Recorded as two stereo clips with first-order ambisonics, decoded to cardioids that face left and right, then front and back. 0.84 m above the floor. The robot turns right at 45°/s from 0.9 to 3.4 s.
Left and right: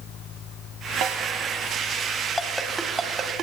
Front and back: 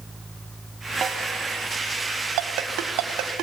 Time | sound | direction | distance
1.0 | a snare drum | 120° right | 1.6 m
2.4 | a ringtone | 170° left | 1.5 m